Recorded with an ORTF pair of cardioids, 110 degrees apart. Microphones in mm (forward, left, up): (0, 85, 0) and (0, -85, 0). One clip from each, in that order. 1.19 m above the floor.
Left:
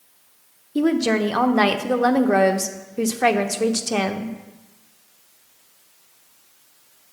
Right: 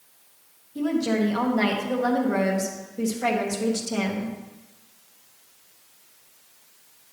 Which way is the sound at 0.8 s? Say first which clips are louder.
Left 5 dB; 50° left.